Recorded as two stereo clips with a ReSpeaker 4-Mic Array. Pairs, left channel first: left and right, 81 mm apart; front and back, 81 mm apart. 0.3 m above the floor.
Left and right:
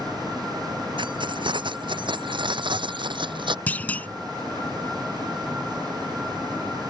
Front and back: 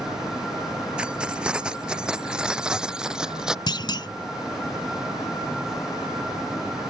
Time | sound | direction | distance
1.0 | keys jangling | 105° right | ?
3.7 | a clunk | 20° left | ?